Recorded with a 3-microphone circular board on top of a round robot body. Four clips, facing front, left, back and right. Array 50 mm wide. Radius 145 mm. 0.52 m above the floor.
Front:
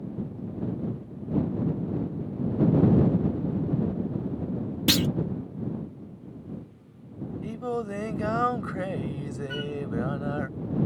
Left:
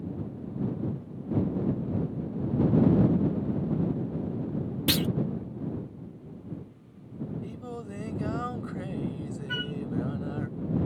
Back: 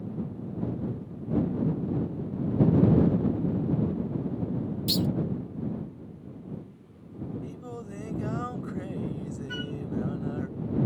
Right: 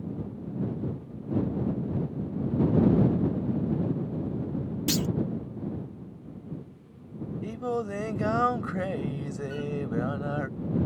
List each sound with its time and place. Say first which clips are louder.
4.9 s a clunk: left 1 dB, front 5 dB; 25° left
7.4 s singing: right 8 dB, front 9 dB; 50° right
9.5 s a flute: left 2 dB, front 2 dB; 95° left